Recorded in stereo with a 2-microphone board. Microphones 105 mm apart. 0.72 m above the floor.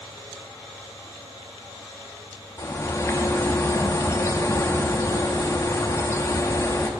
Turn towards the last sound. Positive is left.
turn(degrees=25)  # may be behind; listen again after turning